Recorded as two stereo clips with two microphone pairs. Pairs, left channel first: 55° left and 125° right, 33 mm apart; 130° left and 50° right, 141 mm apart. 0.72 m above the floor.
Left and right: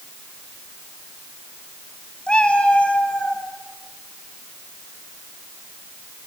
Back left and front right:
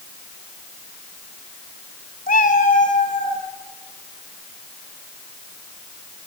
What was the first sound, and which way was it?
A cat meowing, 115° left.